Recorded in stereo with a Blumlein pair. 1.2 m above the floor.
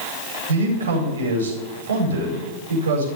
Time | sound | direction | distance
0.5 | a man speaking | 65° right | 4.5 m